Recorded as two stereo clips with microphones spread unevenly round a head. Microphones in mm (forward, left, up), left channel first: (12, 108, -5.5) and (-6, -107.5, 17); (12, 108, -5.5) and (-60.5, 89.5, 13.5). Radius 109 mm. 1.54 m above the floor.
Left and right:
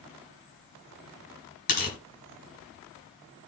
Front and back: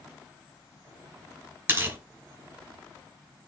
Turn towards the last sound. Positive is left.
turn(degrees=140)